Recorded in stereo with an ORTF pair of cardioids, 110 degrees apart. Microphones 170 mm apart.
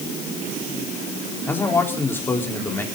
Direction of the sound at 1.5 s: 15° left.